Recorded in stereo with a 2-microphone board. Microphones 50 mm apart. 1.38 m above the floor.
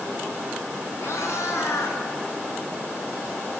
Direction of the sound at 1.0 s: 70° left (ahead or behind).